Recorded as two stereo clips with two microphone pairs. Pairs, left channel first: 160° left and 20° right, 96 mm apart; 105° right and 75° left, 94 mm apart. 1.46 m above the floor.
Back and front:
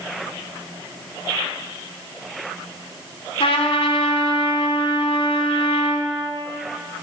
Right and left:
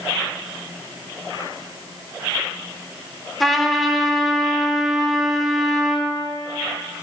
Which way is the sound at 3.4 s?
170° left.